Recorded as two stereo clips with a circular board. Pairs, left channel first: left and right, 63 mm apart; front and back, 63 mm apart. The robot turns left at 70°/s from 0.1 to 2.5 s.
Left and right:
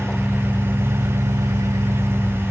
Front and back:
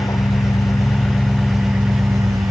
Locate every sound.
0.0 s an engine running: 5° left, 1.0 m; by 2.5 s 160° right, 1.0 m